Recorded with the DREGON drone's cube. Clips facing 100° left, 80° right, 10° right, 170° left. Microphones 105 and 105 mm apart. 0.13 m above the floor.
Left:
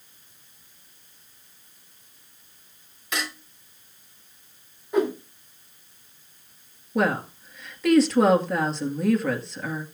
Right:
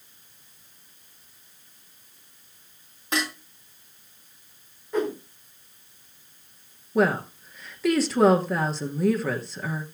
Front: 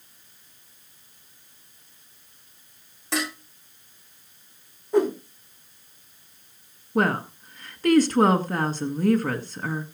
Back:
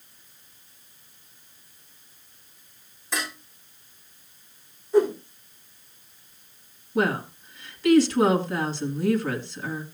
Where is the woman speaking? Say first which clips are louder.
Right 2 dB, front 1 dB; 10° left, 1.8 m.